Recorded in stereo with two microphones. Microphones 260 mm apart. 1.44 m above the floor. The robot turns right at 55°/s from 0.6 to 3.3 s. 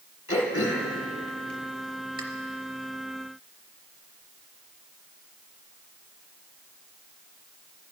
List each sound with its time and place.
0.3 s throat clearing: 50° left (ahead or behind), 1.5 m; by 2.2 s 35° right (ahead or behind), 1.5 m